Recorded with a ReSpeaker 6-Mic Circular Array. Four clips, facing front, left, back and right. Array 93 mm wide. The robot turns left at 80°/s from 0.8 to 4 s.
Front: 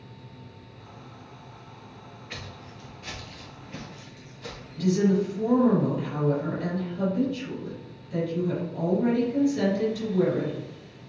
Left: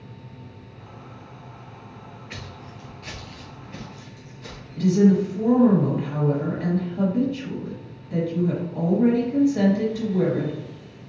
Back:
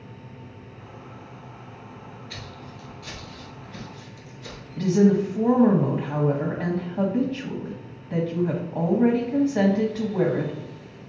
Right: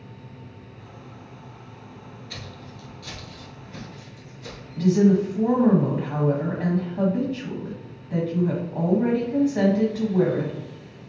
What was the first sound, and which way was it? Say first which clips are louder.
Footsteps: left 1 dB, back 2 dB; 60° left.